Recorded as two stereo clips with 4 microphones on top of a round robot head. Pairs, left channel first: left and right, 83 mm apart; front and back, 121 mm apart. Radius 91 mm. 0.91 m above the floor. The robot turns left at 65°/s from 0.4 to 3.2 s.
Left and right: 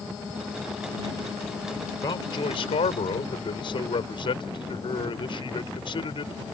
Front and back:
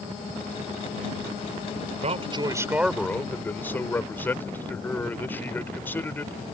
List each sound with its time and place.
2.0 s a man speaking: 150° left; by 6.3 s 75° left